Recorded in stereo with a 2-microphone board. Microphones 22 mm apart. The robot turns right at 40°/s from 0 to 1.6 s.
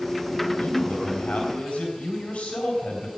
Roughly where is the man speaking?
Left.